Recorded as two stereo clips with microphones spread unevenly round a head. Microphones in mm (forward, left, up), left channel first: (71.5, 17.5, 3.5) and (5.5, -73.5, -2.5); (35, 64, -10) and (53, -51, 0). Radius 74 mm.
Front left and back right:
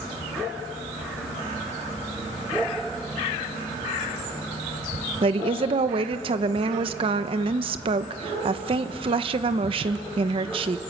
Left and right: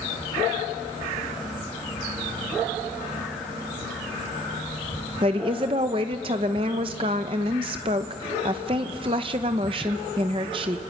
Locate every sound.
5.2 s a woman speaking: 125° right, 1.0 m